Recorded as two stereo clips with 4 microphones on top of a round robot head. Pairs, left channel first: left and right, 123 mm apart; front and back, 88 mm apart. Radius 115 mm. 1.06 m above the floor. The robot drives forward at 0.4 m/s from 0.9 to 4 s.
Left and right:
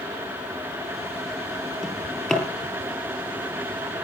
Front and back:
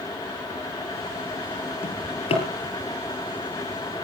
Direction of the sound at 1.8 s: 5° left.